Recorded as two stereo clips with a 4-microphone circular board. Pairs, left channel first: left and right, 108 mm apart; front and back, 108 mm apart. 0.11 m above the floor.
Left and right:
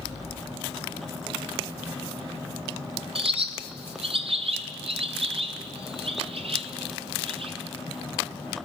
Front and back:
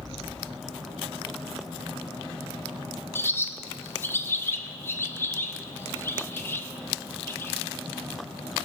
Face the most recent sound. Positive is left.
turn(degrees=-65)